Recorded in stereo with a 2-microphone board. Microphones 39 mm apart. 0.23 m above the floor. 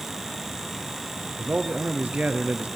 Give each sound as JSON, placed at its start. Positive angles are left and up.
{"t": 1.4, "sound": "a man speaking", "side_deg": -35, "distance_m": 3.5}